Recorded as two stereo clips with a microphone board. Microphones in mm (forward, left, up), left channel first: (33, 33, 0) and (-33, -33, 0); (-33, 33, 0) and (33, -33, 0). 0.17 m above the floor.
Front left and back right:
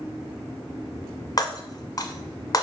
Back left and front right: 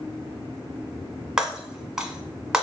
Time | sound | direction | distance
1.4 | breaking glass | 35° left | 0.6 m